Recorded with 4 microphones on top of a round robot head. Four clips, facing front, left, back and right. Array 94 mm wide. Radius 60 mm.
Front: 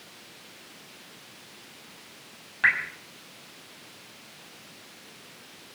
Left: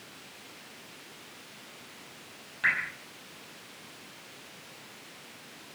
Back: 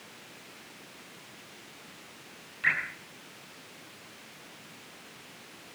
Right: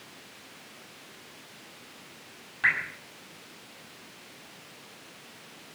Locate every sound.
2.6 s dripping: 15° right, 6.5 m